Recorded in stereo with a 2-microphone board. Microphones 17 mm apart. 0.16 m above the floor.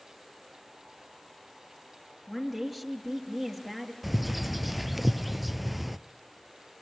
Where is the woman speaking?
5° left (ahead or behind), 3.5 m.